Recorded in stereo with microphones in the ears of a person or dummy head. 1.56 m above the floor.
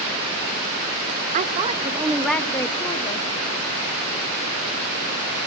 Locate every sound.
1.3 s a woman speaking: 40° right (ahead or behind), 1.9 m; by 3.3 s 30° left (ahead or behind), 3 m